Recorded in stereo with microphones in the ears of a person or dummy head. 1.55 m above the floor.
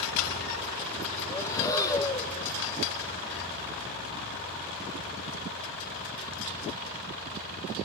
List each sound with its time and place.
1.3 s breathing: 20° left (ahead or behind), 1.9 m